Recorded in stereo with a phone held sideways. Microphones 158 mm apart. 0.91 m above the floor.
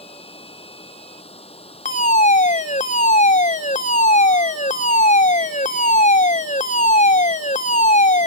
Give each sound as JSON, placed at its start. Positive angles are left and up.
{"t": 0.0, "sound": "running water", "side_deg": 35}
{"t": 1.9, "sound": "a fire alarm", "side_deg": 50}